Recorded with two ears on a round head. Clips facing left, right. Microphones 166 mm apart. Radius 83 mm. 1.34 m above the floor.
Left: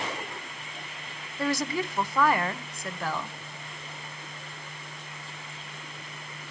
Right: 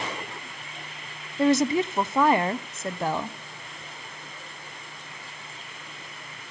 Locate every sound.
1.4 s a woman speaking: 20° right (ahead or behind), 0.7 m